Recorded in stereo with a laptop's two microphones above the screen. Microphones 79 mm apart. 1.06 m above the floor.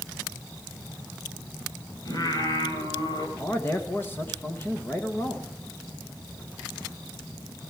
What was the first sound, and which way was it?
Singing, 50° left (ahead or behind).